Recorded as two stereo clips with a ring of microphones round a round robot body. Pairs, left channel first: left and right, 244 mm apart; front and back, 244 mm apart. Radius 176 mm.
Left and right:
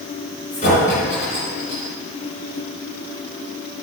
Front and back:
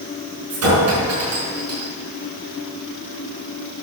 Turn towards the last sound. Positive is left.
turn(degrees=160)